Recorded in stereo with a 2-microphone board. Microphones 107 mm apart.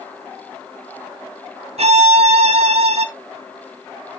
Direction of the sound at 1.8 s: 70° right (ahead or behind).